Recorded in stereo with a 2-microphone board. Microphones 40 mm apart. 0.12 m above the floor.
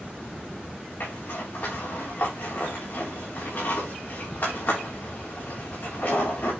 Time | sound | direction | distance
1.0 | a zipper | 55° left (ahead or behind) | 5.5 m